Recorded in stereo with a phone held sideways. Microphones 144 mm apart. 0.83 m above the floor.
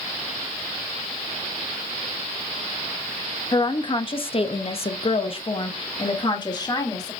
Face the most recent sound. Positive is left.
turn(degrees=25)  # may be behind; listen again after turning